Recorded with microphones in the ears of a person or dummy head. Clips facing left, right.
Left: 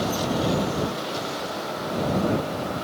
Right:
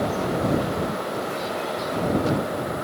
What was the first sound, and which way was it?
Only background noise.